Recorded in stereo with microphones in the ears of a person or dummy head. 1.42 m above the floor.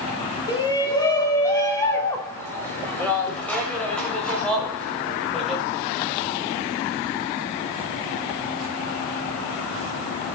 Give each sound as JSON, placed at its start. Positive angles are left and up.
{"t": 0.5, "sound": "a shout", "side_deg": 25, "distance_m": 3.5}